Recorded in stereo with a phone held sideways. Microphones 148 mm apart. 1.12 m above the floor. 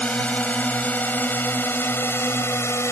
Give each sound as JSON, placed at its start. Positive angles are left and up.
{"t": 0.0, "sound": "a drone", "side_deg": 10}